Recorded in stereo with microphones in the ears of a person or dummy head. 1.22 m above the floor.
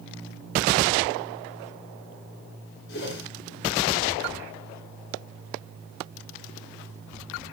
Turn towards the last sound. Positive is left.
turn(degrees=60)  # may be behind; listen again after turning